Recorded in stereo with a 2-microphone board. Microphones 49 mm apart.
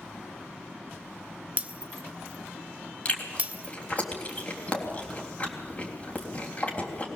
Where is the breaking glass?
30° right (ahead or behind), 0.9 m.